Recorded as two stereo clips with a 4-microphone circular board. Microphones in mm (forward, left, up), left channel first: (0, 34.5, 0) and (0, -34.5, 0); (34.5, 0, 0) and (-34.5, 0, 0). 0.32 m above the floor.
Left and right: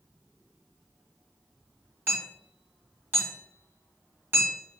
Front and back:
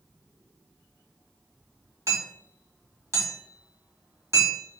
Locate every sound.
2.1 s hammering: 150° right, 1.9 m